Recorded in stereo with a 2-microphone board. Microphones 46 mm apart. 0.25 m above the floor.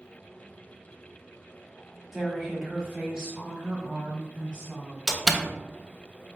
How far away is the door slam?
About 0.6 m.